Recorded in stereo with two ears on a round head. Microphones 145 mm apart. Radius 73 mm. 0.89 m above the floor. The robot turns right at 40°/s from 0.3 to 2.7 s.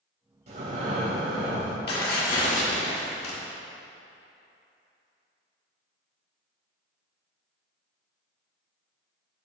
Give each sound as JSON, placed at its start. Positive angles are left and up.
{"t": 0.5, "sound": "breathing", "azimuth_deg": -135, "distance_m": 2.0}
{"t": 1.9, "sound": "tearing paper", "azimuth_deg": 105, "distance_m": 1.9}